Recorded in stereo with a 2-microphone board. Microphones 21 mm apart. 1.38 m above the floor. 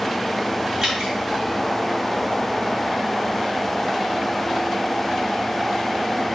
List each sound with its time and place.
0.8 s dripping: 25° right (ahead or behind), 2.5 m